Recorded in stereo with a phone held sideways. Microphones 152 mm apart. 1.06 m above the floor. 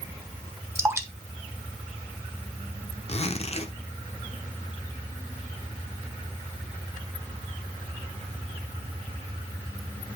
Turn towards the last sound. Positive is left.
turn(degrees=45)  # may be behind; listen again after turning